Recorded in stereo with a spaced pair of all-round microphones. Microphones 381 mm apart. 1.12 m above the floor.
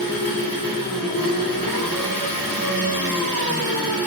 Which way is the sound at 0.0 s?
60° left (ahead or behind).